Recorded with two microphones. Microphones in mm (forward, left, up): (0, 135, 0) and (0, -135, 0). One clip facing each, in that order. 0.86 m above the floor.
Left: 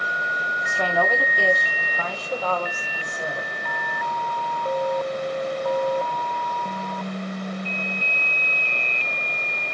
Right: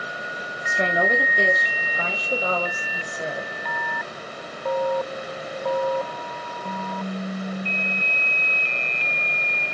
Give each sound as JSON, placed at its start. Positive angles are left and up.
{"t": 0.7, "sound": "a woman speaking", "side_deg": -20, "distance_m": 1.3}